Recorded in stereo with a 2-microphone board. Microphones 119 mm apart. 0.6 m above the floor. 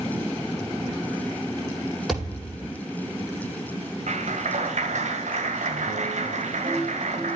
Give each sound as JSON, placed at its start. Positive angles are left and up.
{"t": 2.1, "sound": "a thud", "side_deg": 0, "distance_m": 7.5}
{"t": 4.1, "sound": "a clap", "side_deg": -80, "distance_m": 2.0}